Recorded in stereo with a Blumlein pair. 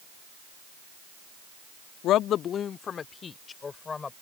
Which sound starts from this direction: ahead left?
A woman speaking, at 2.0 s.